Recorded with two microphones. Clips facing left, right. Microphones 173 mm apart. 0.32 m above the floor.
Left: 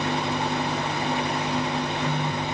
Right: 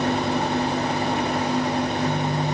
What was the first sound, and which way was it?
Only background noise.